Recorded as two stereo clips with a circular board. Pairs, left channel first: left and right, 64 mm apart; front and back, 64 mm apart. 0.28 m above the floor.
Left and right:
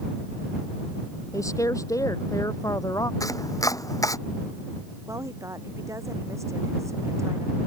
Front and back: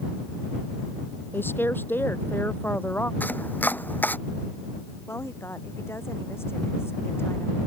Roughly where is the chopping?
Ahead left.